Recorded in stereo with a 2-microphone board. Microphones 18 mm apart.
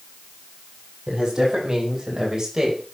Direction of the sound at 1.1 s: 40° right (ahead or behind).